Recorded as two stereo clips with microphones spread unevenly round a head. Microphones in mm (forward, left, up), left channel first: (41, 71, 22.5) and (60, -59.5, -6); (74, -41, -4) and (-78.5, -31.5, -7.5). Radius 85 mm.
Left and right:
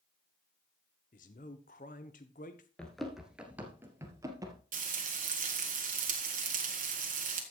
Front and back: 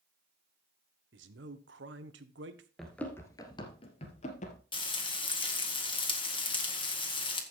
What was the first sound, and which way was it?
A man speaking, 145° left.